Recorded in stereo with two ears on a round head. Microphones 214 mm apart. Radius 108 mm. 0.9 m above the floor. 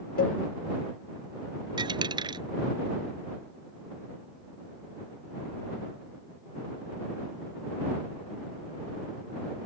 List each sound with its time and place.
0.2 s a cowbell: 40° left (ahead or behind)
1.8 s a dropped coin: 20° right (ahead or behind)